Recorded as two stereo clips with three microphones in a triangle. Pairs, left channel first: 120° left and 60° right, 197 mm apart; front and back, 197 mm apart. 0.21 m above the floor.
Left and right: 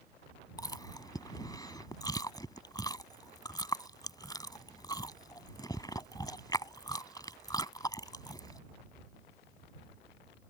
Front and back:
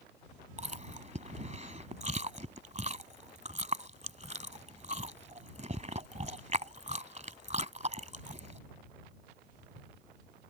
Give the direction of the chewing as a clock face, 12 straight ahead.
6 o'clock.